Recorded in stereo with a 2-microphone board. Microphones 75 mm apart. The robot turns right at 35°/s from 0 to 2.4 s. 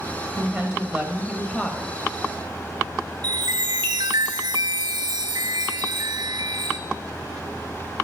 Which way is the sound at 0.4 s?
15° right (ahead or behind).